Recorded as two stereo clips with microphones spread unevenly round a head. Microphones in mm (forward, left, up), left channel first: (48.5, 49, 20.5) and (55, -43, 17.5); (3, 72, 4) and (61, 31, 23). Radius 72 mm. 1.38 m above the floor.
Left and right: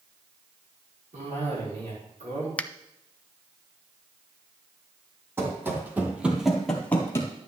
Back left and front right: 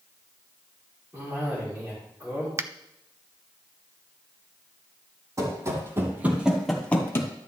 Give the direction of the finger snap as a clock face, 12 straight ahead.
11 o'clock.